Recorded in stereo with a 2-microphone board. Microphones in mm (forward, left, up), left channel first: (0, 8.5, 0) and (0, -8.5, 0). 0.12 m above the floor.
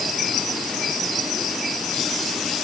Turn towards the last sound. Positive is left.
No sound to turn to.